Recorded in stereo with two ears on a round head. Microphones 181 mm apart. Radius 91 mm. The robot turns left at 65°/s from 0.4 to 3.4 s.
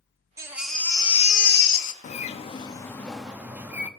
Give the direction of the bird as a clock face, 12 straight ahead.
10 o'clock.